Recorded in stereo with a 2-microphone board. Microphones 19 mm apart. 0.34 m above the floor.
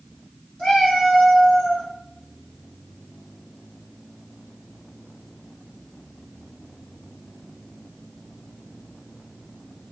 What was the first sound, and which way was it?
A cat meowing, 55° left (ahead or behind).